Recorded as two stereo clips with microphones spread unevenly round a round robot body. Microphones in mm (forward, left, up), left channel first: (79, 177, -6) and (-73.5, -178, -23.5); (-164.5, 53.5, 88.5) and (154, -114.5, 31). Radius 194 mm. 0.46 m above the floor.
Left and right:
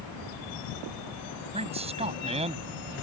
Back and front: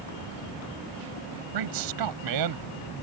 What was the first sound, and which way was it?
A man speaking, 40° right.